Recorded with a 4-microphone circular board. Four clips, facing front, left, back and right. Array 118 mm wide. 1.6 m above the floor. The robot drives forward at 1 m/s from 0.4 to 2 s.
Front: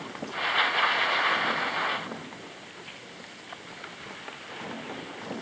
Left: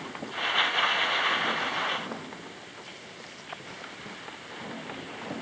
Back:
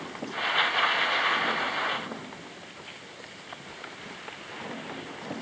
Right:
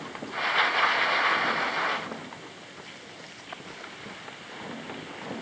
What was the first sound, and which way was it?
Only background noise.